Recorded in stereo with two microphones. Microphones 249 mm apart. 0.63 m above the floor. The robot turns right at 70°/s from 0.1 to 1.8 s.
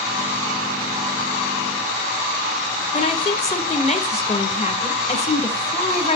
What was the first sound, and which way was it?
A woman speaking, 25° left (ahead or behind).